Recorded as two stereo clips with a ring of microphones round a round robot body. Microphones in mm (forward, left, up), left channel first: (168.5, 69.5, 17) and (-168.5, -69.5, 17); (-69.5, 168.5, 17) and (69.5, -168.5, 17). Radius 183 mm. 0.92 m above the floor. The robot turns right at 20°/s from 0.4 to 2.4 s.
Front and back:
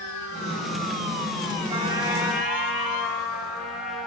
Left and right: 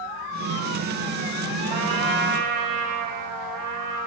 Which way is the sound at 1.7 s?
85° right.